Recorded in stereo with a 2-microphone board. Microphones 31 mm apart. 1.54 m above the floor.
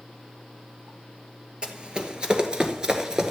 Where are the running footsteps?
30° right (ahead or behind), 2.0 m; by 3.3 s 20° right (ahead or behind), 1.6 m.